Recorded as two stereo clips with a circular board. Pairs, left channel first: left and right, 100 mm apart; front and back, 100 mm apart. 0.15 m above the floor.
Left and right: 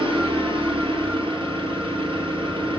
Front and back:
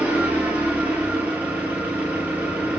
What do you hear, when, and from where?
0.0 s an engine running: 105° right, 1.8 m